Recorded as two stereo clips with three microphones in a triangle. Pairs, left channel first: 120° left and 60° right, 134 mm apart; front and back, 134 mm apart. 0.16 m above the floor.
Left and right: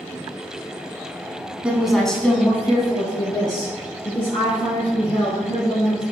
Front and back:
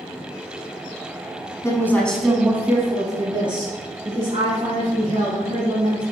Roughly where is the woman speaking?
Ahead.